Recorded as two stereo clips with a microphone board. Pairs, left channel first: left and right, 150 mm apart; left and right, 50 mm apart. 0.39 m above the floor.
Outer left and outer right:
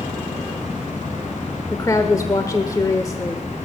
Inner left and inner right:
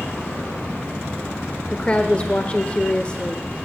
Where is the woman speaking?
25° left (ahead or behind), 1.1 m.